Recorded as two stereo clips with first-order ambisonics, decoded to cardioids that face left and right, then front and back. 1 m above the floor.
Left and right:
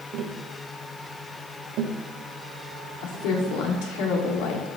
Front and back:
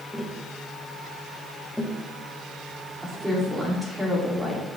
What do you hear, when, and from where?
0.1 s tapping: 85° right, 1.1 m
3.0 s a woman speaking: 95° left, 2 m